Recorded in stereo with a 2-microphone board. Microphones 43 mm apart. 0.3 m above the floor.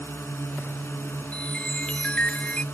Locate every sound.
0.0 s a drone: 70° left (ahead or behind)
1.3 s a chime: 25° left (ahead or behind)